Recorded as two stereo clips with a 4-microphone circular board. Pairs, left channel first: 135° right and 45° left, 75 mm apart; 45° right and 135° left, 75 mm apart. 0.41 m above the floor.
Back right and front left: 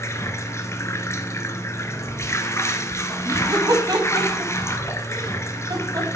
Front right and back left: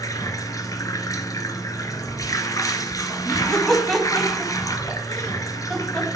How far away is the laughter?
About 3 m.